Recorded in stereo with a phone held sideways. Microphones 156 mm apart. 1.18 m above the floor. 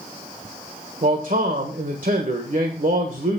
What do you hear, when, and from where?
1.0 s a man speaking: 60° right (ahead or behind), 1.3 m